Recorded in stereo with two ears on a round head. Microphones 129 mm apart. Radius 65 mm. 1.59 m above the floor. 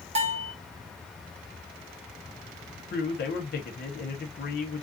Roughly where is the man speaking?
Left.